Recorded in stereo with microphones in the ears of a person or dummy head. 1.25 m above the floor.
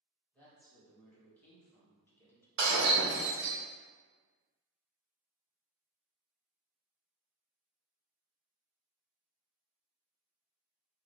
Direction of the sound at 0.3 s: 10° left (ahead or behind).